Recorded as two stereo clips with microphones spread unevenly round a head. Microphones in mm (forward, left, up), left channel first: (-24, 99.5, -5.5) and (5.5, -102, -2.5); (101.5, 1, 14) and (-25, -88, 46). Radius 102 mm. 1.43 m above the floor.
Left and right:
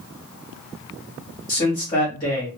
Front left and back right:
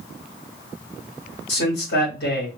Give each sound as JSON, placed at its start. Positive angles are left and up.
{"t": 1.5, "sound": "a man speaking", "azimuth_deg": 25, "distance_m": 2.0}